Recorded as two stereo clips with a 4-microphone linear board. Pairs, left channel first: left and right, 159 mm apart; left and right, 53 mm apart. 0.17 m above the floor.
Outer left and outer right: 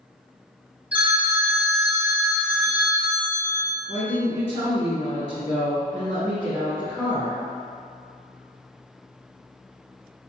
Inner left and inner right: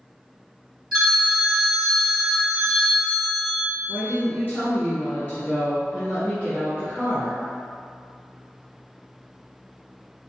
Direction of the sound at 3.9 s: 40° left (ahead or behind).